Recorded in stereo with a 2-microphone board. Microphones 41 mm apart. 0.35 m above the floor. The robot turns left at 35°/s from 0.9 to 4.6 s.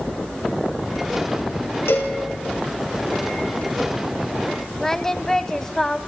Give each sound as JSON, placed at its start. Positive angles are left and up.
{"t": 1.9, "sound": "a cowbell", "side_deg": 80, "distance_m": 4.0}
{"t": 4.8, "sound": "singing", "side_deg": 10, "distance_m": 1.1}